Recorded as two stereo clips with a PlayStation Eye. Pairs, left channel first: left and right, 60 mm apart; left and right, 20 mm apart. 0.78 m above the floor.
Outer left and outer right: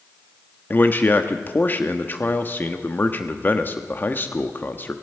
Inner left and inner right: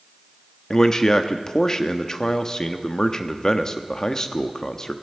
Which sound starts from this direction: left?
A man speaking, at 0.7 s.